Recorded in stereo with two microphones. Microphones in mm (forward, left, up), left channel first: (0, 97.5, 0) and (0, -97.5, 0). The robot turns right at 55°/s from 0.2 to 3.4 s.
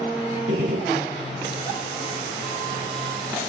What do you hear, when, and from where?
0.5 s a gunshot: 85° right, 6.5 m; by 1.1 s 50° right, 6.5 m